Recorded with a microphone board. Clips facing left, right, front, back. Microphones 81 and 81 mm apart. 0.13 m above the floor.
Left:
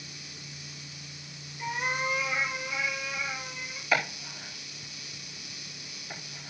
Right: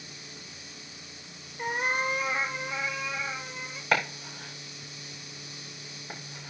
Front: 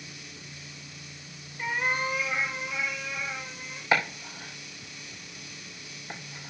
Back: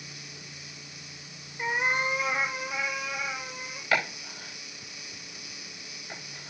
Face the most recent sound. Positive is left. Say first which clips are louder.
# right 1 dB, front 2 dB
turn(degrees=-65)